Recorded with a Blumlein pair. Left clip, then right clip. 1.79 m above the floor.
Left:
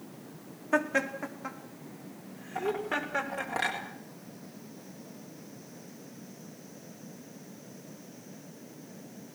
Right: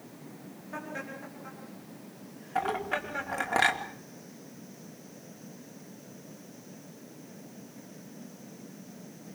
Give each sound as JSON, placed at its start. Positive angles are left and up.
{"t": 0.7, "sound": "laughter", "azimuth_deg": 35, "distance_m": 4.0}
{"t": 2.5, "sound": "a clink", "azimuth_deg": -65, "distance_m": 3.5}